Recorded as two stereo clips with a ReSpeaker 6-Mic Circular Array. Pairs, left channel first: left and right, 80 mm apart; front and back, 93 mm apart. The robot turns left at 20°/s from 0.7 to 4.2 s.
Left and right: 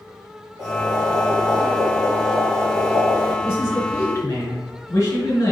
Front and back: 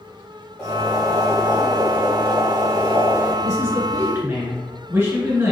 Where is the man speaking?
145° left, 1.7 m; by 5.5 s 130° left, 1.7 m.